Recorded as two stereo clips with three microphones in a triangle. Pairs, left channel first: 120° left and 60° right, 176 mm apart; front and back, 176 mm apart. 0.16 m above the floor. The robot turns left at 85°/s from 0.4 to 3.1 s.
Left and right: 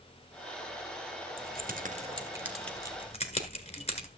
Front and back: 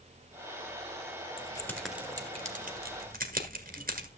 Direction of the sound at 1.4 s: 45° right.